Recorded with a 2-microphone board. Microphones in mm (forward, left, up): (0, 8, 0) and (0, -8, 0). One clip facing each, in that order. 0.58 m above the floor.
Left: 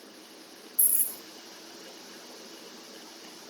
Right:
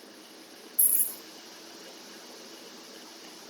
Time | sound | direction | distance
0.8 | keys jangling | 5° left (ahead or behind) | 1.9 m